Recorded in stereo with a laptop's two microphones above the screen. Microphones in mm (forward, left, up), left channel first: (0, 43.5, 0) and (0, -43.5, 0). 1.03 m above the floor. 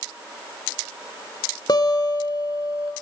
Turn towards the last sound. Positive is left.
turn(degrees=50)  # may be behind; listen again after turning